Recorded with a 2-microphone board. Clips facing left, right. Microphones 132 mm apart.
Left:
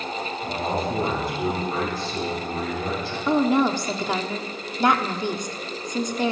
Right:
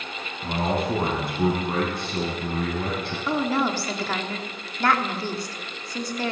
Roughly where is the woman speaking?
Centre.